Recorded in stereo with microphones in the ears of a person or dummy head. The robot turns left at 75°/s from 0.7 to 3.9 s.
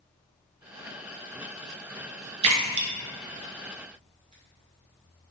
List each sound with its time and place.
2.4 s a splash: 30° right (ahead or behind), 0.6 m; by 4.3 s 35° right (ahead or behind), 0.6 m